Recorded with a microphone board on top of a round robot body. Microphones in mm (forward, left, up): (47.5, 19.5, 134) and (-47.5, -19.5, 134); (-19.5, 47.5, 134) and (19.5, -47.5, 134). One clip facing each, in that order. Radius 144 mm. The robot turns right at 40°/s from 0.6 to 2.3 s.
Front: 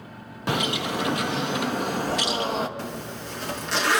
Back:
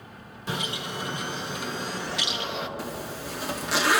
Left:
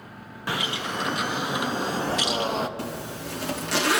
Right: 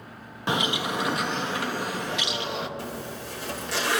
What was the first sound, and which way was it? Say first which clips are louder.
A bird: front 7 dB, right 3 dB; straight ahead.